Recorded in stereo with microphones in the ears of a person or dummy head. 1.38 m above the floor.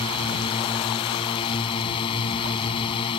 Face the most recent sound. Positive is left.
turn(degrees=30)  # may be behind; listen again after turning